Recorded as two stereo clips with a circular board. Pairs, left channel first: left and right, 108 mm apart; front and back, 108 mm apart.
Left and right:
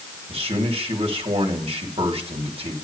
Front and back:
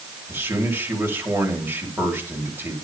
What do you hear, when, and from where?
0.3 s a man speaking: 110° right, 4 m